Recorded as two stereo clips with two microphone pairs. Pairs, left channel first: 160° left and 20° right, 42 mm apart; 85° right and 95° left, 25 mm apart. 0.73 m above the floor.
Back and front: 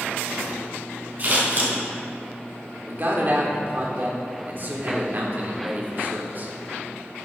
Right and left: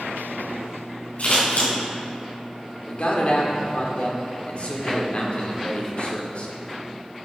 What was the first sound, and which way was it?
Scissors, 70° right.